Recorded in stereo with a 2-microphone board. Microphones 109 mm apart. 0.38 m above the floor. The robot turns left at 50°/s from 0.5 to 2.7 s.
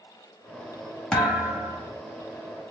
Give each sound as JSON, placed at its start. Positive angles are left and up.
{"t": 1.1, "sound": "a thud", "azimuth_deg": 10, "distance_m": 0.8}